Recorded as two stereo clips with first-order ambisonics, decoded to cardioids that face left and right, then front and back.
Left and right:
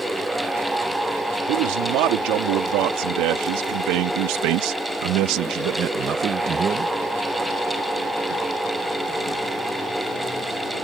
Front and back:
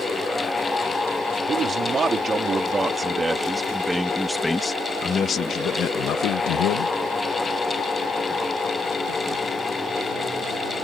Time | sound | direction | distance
1.5 | a man speaking | 115° right | ?